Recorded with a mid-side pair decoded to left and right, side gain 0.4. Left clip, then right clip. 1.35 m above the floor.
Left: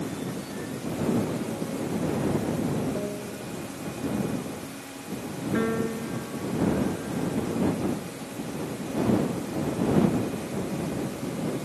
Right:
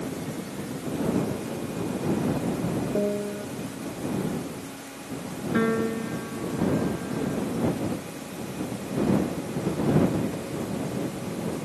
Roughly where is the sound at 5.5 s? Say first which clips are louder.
Right 3 dB; ahead right.